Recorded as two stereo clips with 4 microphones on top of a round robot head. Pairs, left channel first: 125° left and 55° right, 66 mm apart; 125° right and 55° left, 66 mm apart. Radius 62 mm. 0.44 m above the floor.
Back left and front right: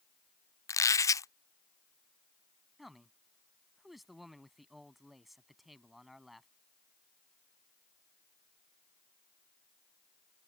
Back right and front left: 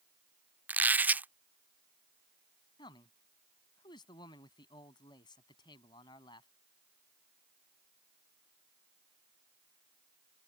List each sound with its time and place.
0.7 s a squeak: 110° left
2.8 s a man speaking: 140° right